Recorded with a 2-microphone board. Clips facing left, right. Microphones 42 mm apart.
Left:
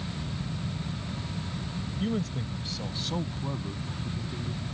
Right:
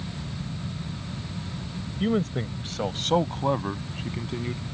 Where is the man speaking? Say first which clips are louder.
Right 6 dB; 35° right (ahead or behind); by 4.6 s 70° right (ahead or behind).